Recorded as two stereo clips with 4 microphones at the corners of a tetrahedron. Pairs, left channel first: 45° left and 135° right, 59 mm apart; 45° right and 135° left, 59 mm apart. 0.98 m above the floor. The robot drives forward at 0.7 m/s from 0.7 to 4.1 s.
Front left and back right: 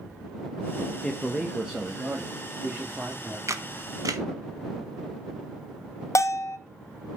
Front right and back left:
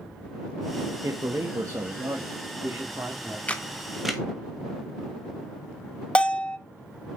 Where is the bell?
25° left, 0.5 m.